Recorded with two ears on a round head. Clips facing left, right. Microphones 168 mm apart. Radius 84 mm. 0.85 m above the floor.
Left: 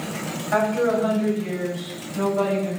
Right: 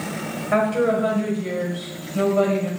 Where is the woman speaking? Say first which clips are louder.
Right 1 dB; 65° right (ahead or behind), 5.5 m.